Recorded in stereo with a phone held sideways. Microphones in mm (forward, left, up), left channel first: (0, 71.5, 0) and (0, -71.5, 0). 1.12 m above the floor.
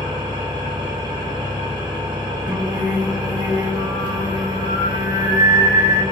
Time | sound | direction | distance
0.0 | an engine running | 30° right (ahead or behind) | 0.9 m
2.5 | singing | 30° right (ahead or behind) | 0.9 m